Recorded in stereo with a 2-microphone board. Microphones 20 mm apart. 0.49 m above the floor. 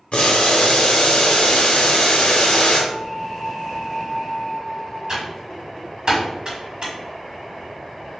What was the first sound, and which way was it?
Boiling, 70° left (ahead or behind).